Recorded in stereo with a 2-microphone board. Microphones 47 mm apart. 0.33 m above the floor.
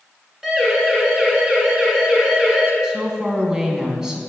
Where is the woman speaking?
10° right (ahead or behind), 3 m.